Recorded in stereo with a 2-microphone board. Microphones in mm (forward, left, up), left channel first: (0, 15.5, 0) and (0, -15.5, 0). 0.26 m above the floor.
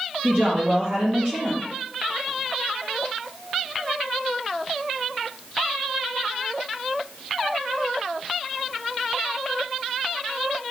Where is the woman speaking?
55° right (ahead or behind), 4 m.